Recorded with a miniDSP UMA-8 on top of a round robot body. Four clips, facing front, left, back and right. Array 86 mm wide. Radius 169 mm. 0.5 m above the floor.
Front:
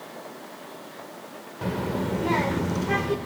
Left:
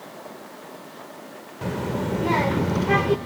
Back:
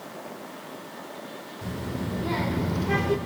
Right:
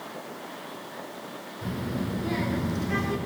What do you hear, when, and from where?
1.6 s a child speaking: 45° left, 1.2 m; by 3.2 s 90° left, 1.2 m